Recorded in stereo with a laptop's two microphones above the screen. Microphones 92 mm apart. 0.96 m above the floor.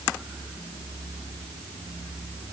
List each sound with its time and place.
Only background noise.